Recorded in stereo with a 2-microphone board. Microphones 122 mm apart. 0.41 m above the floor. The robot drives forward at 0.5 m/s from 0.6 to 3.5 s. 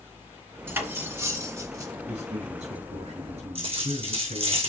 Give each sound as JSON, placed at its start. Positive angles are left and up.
{"t": 0.7, "sound": "cutlery clinking", "side_deg": -20, "distance_m": 1.6}
{"t": 2.1, "sound": "a man speaking", "side_deg": -70, "distance_m": 4.5}
{"t": 3.5, "sound": "a dropped coin", "side_deg": -55, "distance_m": 4.5}